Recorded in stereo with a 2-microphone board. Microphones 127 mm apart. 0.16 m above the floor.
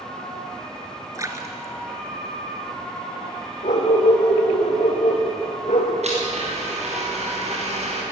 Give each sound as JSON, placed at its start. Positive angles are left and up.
{"t": 1.1, "sound": "a splash", "side_deg": -25, "distance_m": 2.5}
{"t": 3.6, "sound": "a dog barking", "side_deg": 70, "distance_m": 6.5}
{"t": 6.0, "sound": "a blender", "side_deg": -60, "distance_m": 7.5}